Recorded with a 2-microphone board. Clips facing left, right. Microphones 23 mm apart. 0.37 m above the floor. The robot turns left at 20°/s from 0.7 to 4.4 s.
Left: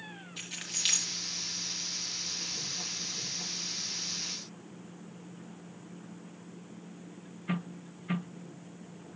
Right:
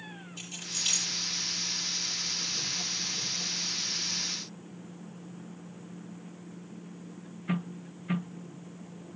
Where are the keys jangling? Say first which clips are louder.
Left 1 dB; 75° left (ahead or behind), 5 m; by 1.1 s 65° left (ahead or behind), 5 m.